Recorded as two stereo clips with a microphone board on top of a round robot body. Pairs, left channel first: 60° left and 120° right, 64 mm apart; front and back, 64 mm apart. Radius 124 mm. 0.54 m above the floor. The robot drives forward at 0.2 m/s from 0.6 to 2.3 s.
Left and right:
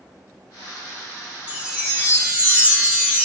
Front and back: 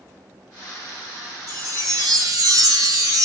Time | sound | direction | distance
1.5 | a chime | 170° left | 1.9 m